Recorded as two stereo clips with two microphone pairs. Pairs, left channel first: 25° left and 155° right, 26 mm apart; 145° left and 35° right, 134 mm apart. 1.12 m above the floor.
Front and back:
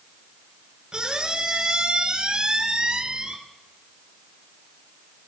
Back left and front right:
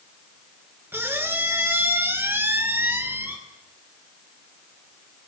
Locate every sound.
0.9 s a squeak: 105° right, 1.6 m